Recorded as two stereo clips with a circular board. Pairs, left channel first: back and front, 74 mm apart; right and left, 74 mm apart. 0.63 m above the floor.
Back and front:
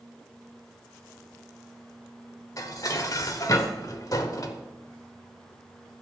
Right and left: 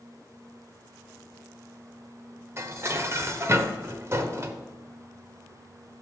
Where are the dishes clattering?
140° left, 1.2 m.